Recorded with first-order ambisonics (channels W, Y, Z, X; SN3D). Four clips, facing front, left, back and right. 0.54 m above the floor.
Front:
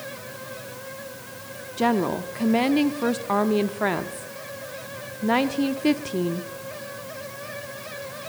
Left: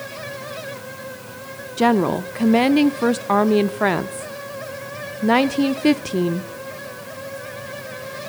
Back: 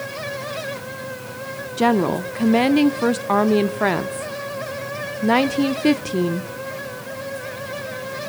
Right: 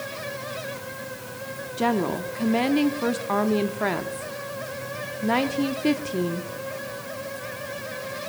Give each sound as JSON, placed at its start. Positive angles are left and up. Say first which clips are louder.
{"t": 1.8, "sound": "a woman speaking", "louder": "left 7 dB, back 4 dB", "azimuth_deg": 125, "distance_m": 0.7}